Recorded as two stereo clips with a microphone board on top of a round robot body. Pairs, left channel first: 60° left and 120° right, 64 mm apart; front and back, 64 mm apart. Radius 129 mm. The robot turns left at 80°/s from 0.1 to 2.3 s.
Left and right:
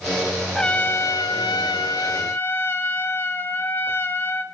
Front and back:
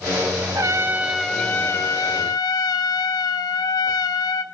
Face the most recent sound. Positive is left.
turn(degrees=5)